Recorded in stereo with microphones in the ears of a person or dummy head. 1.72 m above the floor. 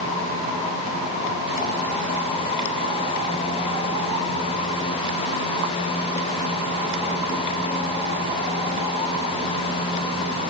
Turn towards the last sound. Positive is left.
No sound to turn to.